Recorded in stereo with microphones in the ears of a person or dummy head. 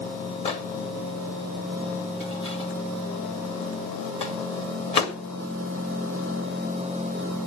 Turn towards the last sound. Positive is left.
turn(degrees=40)  # may be behind; listen again after turning